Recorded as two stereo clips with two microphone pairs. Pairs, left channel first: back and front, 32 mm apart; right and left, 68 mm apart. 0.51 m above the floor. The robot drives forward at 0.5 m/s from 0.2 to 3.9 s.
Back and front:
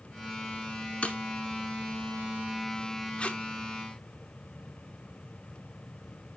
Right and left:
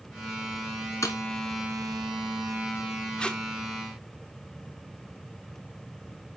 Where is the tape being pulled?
155° right, 1.0 m; by 3.4 s 160° right, 1.0 m.